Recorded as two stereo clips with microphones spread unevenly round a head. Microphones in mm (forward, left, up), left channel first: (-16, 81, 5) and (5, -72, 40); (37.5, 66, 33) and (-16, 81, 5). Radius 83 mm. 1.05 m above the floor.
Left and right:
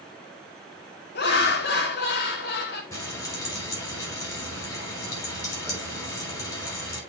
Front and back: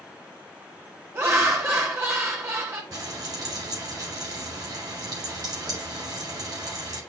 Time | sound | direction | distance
1.1 | laughter | 120° left | 1.8 m
2.9 | frying | 170° left | 5 m